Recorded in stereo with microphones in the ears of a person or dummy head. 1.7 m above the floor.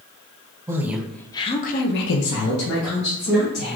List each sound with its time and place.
0.7 s a woman speaking: 20° right (ahead or behind), 0.7 m; by 3.8 s 80° left, 1.5 m